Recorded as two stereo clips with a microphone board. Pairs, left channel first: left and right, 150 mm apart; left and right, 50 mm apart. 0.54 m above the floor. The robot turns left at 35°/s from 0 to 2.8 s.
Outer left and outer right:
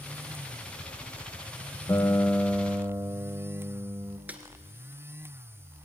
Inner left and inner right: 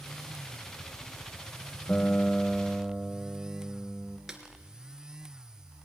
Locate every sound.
1.9 s a guitar: 20° left, 1.2 m; by 4.2 s 15° right, 1.2 m
4.3 s a snare drum: 10° right (ahead or behind), 2.0 m